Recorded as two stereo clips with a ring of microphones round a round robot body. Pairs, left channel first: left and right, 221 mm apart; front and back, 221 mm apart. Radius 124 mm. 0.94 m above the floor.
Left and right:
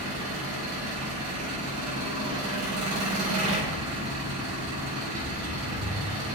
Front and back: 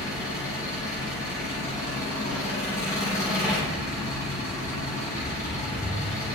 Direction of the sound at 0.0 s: 75° right.